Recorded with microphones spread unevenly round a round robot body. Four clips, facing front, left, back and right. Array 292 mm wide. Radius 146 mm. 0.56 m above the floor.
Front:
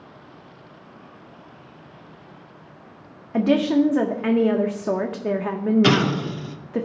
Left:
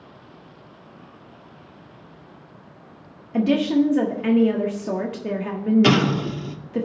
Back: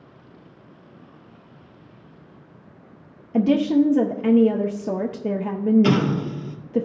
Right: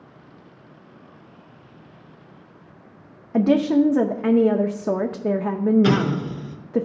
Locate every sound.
3.3 s a woman speaking: 115° right, 0.7 m
5.8 s an explosion: 55° left, 1.7 m